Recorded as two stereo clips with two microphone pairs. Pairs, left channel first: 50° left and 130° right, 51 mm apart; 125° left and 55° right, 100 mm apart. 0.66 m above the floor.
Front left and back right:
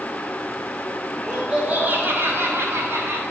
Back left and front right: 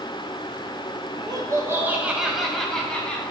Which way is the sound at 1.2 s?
55° right.